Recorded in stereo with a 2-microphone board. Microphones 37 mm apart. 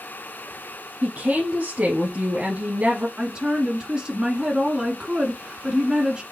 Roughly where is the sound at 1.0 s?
Right.